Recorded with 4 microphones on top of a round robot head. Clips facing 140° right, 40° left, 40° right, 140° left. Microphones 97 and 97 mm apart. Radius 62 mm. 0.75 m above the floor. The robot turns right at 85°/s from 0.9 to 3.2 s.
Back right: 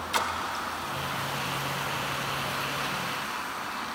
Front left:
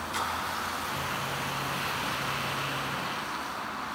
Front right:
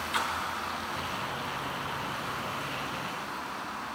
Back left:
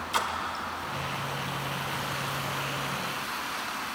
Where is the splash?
160° right, 1.9 m.